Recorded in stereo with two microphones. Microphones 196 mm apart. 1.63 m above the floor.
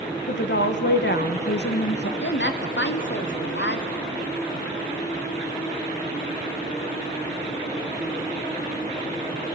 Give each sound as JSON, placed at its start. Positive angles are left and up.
{"t": 0.3, "sound": "a woman speaking", "side_deg": 65, "distance_m": 1.1}
{"t": 2.2, "sound": "a woman speaking", "side_deg": 75, "distance_m": 1.0}